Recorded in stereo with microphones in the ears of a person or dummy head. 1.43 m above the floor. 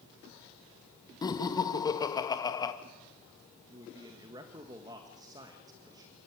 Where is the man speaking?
20° right (ahead or behind), 1.8 m.